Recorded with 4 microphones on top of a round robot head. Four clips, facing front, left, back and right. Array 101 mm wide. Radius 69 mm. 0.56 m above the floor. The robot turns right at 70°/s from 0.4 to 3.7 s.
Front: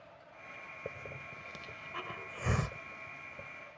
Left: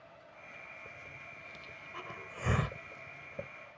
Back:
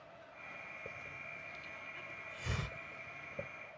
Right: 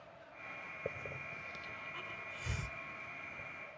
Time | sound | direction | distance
0.8 | a hiss | 60° right | ?